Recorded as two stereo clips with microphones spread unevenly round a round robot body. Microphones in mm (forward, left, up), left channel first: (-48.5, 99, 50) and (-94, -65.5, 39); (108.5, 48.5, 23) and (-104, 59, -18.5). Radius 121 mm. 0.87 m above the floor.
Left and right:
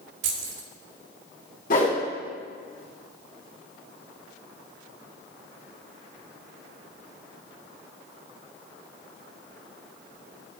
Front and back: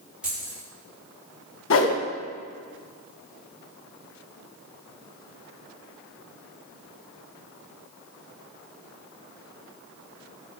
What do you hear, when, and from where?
0.2 s keys jangling: 95° right, 1.0 m
1.7 s a whoosh: 20° left, 1.4 m